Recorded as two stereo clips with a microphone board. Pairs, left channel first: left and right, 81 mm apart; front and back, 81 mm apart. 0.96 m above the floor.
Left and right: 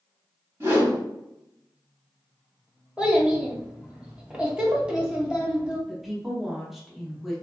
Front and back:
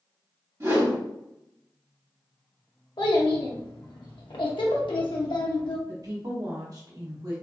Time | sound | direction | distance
0.6 | a whoosh | 140° right | 1.5 m
3.0 | a child speaking | 10° right | 0.6 m
5.9 | a woman speaking | 175° right | 0.8 m